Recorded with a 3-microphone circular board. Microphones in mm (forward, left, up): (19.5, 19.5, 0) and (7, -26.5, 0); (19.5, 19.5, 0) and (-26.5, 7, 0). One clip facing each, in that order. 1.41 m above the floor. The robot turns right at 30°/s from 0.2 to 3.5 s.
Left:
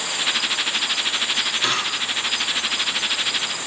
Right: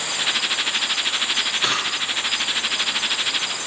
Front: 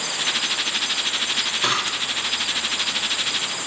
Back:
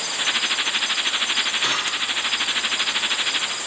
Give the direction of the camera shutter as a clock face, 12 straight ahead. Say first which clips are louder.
Even, even; 1 o'clock.